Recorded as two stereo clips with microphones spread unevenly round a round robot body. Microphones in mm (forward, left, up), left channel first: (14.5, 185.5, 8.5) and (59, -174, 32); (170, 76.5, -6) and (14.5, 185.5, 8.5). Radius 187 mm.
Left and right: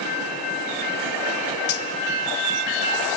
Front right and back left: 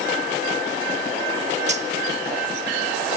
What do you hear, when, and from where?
1.7 s cutlery clinking: 85° left, 1.2 m